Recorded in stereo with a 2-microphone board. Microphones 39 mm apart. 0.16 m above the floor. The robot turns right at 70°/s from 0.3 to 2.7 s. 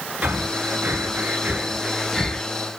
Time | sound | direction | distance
0.2 | breathing | 45° right (ahead or behind) | 0.8 m